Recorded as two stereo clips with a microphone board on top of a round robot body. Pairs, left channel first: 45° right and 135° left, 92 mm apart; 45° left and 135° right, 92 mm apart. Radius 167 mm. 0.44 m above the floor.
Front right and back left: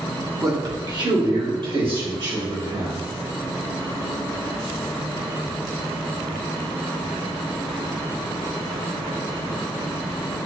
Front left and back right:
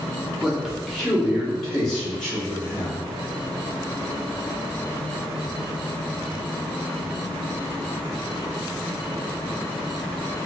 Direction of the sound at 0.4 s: 145° left.